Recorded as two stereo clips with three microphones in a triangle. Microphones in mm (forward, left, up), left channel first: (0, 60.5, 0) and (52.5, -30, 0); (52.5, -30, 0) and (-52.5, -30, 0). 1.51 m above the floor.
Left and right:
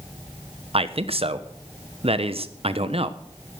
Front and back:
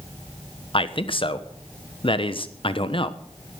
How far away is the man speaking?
About 1.1 m.